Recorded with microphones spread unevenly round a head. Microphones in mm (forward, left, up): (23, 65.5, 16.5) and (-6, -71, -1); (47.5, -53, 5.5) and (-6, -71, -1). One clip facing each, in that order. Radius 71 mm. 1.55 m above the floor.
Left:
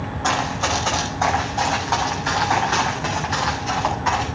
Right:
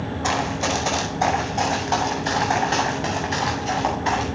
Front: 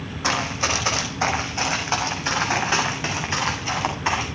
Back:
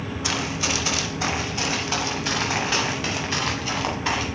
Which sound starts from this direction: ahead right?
Running footsteps, at 0.2 s.